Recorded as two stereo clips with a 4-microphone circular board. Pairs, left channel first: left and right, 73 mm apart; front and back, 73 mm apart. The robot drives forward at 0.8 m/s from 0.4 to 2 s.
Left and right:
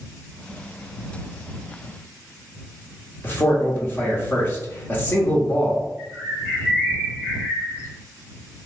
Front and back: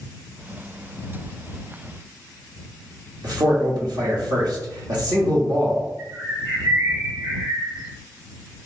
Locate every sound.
3.2 s a man speaking: 155° left, 1.2 m
6.0 s a bird: 145° right, 1.8 m